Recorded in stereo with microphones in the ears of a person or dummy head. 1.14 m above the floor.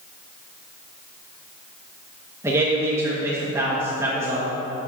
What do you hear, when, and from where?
2.4 s a man speaking: 20° right (ahead or behind), 1.1 m